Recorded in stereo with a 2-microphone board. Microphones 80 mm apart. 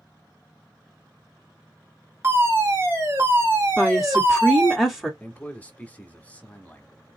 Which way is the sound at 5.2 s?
20° left (ahead or behind).